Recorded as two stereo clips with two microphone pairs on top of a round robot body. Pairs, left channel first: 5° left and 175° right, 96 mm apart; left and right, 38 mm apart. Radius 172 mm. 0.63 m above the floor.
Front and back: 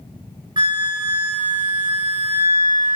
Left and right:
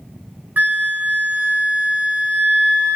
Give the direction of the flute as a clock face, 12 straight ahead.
4 o'clock.